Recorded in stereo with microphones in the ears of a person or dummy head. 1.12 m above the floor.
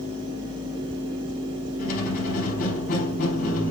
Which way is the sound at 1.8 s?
45° left (ahead or behind).